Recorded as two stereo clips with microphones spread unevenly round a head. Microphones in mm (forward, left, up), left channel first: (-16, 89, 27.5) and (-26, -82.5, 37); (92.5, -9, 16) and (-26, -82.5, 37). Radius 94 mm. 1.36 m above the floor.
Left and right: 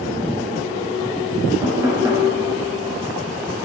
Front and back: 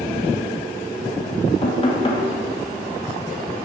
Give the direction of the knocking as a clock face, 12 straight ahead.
1 o'clock.